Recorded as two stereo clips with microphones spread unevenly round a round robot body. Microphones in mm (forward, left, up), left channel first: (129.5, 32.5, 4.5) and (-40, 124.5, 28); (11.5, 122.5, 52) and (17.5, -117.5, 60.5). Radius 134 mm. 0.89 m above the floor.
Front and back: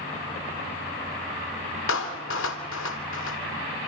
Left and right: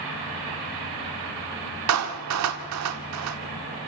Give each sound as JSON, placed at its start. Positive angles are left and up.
{"t": 1.9, "sound": "a clap", "azimuth_deg": -70, "distance_m": 1.6}